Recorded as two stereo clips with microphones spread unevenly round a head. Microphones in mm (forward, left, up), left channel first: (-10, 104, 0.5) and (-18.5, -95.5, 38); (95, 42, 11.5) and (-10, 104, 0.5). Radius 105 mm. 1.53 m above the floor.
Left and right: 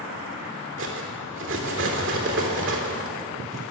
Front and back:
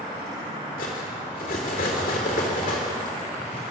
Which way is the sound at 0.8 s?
60° right.